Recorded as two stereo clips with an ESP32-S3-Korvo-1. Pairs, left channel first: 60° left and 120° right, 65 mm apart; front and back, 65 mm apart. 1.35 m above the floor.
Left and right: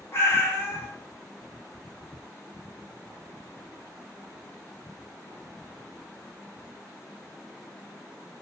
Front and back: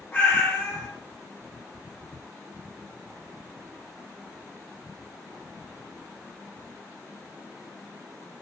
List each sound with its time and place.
0.1 s a cat meowing: 45° left, 0.9 m